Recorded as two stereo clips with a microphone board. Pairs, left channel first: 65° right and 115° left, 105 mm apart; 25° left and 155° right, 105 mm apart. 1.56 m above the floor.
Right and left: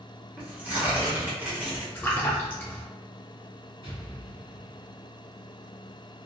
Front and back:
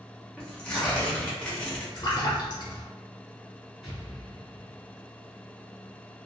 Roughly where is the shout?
I don't hear a shout.